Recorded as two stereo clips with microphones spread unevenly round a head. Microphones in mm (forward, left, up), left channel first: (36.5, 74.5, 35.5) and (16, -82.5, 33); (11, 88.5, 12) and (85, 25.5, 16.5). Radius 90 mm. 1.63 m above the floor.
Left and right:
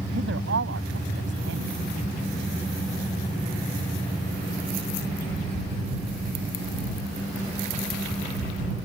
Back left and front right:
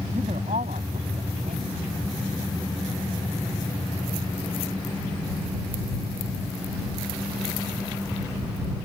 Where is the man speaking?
90° right.